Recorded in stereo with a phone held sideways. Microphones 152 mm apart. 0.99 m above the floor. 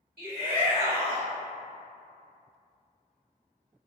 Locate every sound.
0.2 s a shout: 75° right (ahead or behind), 2.0 m